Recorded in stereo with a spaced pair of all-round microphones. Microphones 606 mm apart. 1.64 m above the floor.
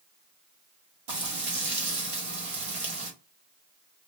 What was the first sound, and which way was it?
Frying, 60° right (ahead or behind).